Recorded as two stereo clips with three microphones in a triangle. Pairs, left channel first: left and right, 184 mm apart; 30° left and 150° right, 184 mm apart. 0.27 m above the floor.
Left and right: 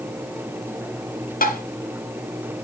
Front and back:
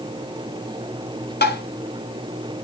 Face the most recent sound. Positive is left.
turn(degrees=50)